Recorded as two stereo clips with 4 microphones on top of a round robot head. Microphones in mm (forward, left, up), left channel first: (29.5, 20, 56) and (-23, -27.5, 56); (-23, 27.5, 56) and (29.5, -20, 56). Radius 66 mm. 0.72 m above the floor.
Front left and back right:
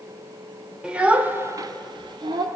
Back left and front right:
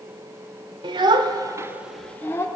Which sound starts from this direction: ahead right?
A child speaking, at 0.8 s.